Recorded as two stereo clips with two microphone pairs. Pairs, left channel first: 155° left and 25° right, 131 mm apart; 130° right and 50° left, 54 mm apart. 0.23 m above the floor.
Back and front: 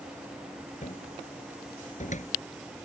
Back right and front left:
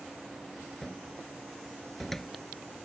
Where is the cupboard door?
145° left.